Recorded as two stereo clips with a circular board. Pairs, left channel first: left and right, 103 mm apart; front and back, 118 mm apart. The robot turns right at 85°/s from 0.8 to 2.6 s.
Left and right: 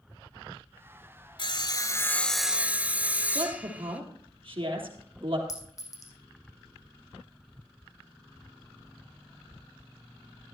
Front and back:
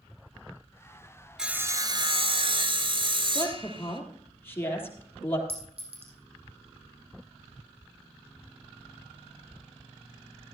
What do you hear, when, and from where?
1.4 s sawing: 95° left, 1.2 m; by 4.0 s 160° right, 1.2 m
3.4 s a woman speaking: 70° right, 3.5 m
5.5 s a clink: 145° left, 3.5 m